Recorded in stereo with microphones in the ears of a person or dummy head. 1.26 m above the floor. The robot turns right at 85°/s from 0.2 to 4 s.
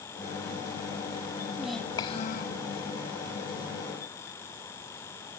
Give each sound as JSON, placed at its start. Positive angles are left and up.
{"t": 1.6, "sound": "a child speaking", "azimuth_deg": -10}